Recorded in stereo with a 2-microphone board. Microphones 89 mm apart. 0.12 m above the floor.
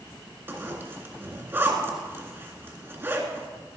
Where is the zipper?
25° right (ahead or behind), 1.7 m.